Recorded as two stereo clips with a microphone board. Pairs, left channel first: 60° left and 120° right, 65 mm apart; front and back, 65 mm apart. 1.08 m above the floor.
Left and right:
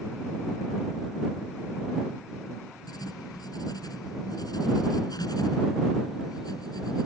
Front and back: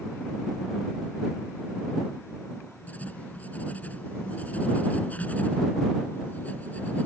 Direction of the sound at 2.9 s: 65° left.